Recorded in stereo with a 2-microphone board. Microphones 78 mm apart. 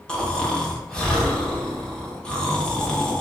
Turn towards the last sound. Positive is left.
turn(degrees=10)  # may be behind; listen again after turning